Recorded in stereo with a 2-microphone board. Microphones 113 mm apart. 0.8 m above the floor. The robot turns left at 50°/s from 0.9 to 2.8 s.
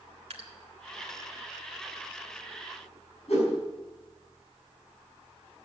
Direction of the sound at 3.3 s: 70° left (ahead or behind).